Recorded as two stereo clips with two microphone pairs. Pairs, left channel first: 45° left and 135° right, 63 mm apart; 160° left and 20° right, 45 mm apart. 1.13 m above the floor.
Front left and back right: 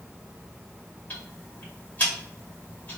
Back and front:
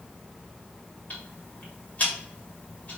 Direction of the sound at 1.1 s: 110° left.